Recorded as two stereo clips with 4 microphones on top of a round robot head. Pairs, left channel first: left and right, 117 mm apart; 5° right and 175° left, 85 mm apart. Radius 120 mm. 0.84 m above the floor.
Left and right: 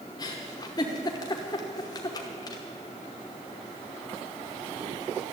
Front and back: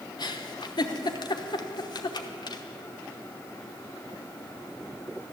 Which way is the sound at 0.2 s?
30° left.